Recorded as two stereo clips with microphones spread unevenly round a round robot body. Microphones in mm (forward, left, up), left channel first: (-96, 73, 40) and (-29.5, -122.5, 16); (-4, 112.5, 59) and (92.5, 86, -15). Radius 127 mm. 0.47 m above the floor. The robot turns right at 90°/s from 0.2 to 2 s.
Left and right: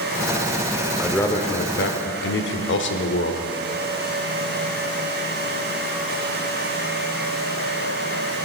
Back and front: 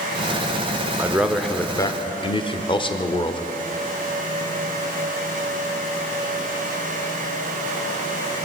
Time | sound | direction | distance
1.0 | a man speaking | 5° left | 1.1 m